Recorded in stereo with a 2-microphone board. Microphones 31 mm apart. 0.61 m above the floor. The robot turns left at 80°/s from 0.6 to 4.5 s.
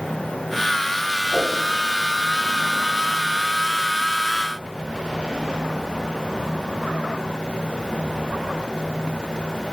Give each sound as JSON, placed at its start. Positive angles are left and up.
{"t": 1.3, "sound": "a whoosh", "side_deg": -15, "distance_m": 2.5}